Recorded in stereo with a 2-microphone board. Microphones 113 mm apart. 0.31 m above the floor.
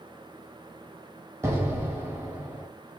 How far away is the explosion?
About 0.9 m.